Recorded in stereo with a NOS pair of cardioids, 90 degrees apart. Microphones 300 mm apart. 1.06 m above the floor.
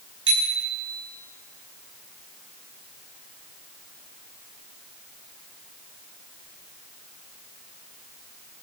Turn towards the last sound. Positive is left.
turn(degrees=-45)